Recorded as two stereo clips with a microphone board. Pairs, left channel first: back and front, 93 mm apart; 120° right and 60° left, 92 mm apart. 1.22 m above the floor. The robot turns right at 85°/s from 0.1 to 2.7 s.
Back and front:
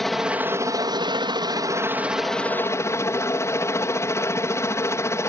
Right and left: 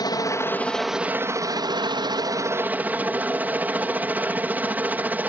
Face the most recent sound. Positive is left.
turn(degrees=125)